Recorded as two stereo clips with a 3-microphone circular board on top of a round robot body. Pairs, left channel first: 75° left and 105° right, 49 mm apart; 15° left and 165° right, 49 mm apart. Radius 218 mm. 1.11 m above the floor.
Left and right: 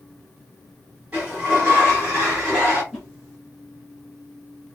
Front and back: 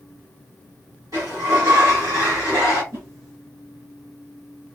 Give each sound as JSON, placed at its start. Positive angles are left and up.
{"t": 1.1, "sound": "a sliding door", "azimuth_deg": -175, "distance_m": 1.3}
{"t": 2.9, "sound": "a whoosh", "azimuth_deg": 165, "distance_m": 1.1}